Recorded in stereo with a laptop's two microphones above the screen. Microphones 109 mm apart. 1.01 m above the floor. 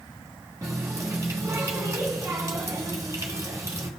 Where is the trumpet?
I don't hear a trumpet.